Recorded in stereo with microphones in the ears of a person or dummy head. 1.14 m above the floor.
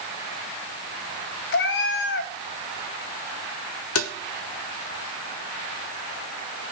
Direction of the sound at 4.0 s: 75° left (ahead or behind).